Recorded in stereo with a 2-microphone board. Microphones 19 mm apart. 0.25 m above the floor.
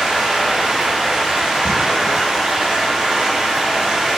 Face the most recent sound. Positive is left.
turn(degrees=-70)  # may be behind; listen again after turning